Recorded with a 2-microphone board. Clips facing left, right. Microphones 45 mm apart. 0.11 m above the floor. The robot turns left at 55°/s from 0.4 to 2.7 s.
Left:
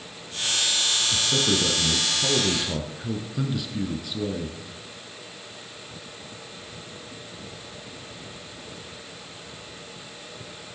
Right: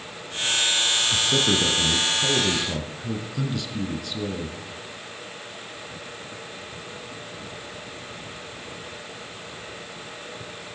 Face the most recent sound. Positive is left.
turn(degrees=10)  # may be behind; listen again after turning